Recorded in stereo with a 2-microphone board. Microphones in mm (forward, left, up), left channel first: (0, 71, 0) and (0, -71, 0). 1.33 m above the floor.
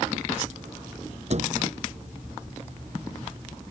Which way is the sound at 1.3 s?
50° right (ahead or behind).